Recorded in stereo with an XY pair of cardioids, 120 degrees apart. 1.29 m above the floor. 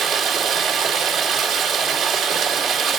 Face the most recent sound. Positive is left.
turn(degrees=-65)